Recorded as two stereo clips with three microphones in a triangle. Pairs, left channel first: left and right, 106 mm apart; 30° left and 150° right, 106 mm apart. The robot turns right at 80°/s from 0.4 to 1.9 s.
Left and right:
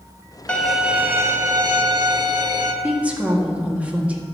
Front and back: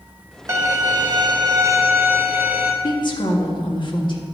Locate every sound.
0.5 s a violin: 160° left, 1.1 m; by 2.7 s 85° right, 1.1 m
2.8 s a woman speaking: 15° right, 1.6 m